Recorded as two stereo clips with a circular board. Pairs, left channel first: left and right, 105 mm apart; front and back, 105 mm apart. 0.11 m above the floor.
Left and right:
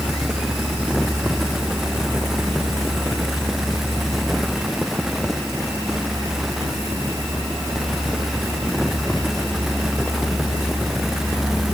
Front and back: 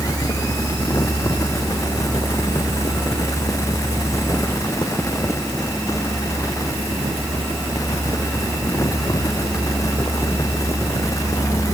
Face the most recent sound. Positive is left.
No sound to turn to.